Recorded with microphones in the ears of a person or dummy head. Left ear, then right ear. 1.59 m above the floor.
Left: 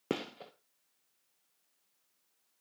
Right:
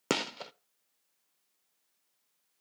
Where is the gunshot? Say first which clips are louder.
Right 6 dB; 50° right (ahead or behind), 0.7 m.